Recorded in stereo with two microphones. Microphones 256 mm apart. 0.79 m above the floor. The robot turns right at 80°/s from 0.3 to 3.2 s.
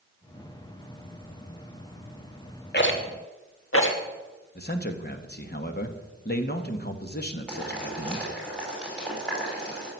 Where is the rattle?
40° left (ahead or behind), 1.6 m; by 4.0 s 55° left (ahead or behind), 1.6 m.